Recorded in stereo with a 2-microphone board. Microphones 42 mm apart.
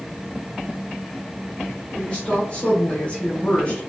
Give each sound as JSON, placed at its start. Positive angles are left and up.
{"t": 1.9, "sound": "a woman speaking", "side_deg": 25, "distance_m": 1.7}